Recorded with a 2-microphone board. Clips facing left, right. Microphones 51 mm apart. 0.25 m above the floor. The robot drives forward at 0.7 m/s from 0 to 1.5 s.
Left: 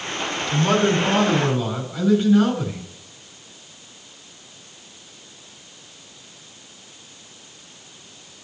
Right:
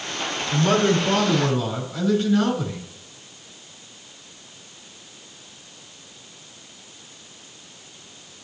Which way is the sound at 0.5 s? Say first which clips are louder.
Even; 10° left (ahead or behind).